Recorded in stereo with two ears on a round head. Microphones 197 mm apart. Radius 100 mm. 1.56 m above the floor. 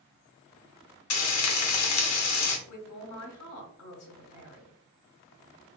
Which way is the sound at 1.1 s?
80° left.